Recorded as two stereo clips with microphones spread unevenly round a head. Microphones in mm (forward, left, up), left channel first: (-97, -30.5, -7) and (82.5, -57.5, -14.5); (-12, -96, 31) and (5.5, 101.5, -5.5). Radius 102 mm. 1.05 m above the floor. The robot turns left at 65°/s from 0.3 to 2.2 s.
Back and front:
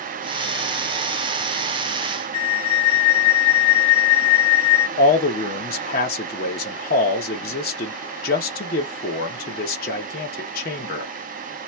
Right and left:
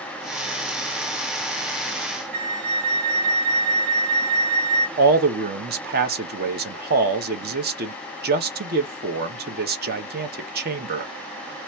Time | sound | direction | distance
2.3 | a flute | 95° left | 2.5 m
5.0 | a man speaking | 120° left | 1.1 m